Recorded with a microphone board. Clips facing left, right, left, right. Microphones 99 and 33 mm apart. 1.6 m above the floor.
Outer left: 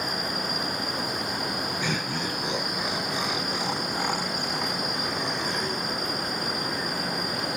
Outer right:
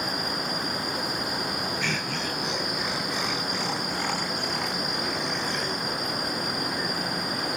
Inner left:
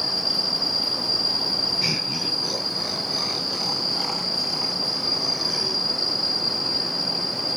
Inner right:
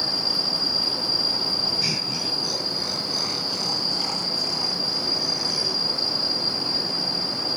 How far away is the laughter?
About 1.6 m.